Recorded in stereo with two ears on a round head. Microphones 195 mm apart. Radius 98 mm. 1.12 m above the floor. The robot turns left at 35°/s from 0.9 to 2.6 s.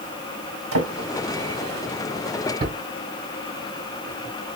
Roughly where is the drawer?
Right.